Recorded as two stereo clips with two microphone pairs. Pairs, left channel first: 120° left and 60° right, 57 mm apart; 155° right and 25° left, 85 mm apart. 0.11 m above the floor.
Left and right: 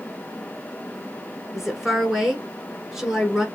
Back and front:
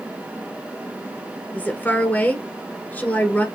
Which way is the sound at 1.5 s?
130° right.